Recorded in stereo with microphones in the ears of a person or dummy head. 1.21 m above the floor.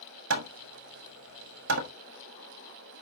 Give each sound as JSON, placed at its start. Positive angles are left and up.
{"t": 0.3, "sound": "hammering", "side_deg": -60, "distance_m": 1.2}